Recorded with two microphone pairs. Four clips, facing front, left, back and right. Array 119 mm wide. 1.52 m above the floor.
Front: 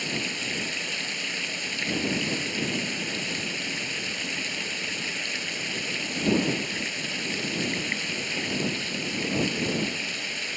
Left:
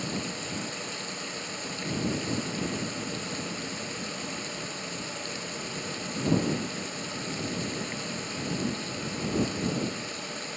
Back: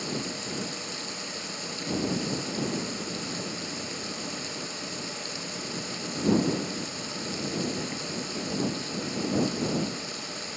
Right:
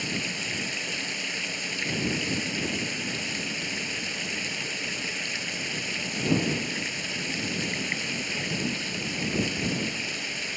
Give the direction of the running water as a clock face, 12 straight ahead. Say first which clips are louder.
Even, even; 1 o'clock.